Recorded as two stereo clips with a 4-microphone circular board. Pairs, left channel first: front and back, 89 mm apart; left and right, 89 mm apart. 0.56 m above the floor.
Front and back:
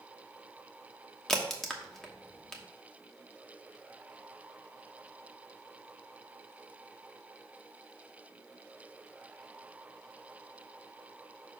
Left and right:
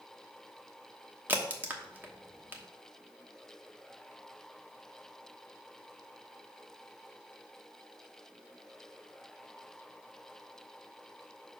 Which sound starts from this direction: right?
A crack, at 1.3 s.